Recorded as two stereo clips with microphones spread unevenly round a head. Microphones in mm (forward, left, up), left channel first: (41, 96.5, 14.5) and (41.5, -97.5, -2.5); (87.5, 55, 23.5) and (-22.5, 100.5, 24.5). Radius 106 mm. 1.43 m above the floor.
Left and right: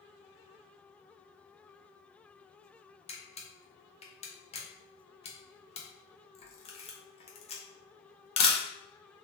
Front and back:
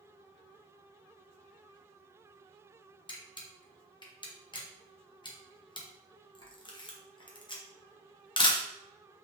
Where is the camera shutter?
30° left, 0.9 m.